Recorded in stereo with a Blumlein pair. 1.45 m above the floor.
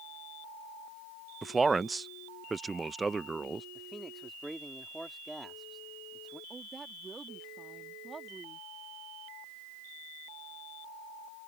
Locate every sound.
1.4 s a man speaking: 10° right
3.8 s a man speaking: 5° right
6.5 s a woman speaking: 15° right